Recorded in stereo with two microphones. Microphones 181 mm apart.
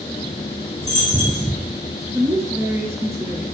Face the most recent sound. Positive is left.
turn(degrees=-15)  # may be behind; listen again after turning